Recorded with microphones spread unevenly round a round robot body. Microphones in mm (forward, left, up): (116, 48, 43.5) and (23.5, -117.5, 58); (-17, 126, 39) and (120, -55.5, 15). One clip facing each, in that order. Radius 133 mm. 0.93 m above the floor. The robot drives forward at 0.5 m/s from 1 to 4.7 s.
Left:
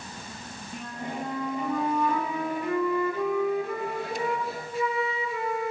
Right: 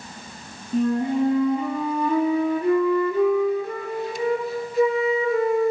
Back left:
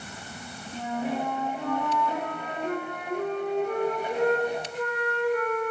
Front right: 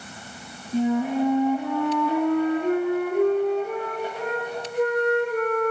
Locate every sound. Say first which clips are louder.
0.7 s a flute: right 15 dB, front right 9 dB; 130° right, 5.5 m; by 5.7 s 145° right, 7 m